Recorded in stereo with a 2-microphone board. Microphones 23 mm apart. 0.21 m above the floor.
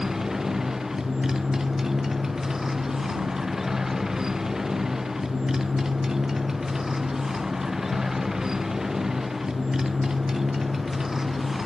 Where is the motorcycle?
20° right (ahead or behind).